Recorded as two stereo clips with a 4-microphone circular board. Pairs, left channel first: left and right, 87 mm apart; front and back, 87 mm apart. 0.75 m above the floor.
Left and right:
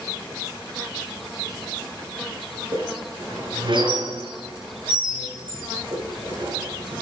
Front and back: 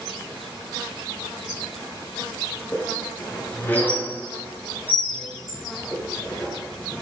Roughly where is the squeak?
Right.